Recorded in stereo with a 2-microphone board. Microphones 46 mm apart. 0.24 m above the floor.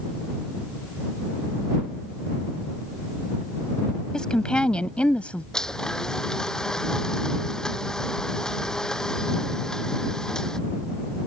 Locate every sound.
4.1 s a woman speaking: 20° left (ahead or behind); by 5.4 s 25° left (ahead or behind)
5.5 s a blender: 15° left (ahead or behind)